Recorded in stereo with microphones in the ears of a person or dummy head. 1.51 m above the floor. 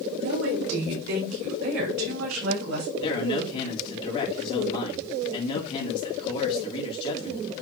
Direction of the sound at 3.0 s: 30° left (ahead or behind).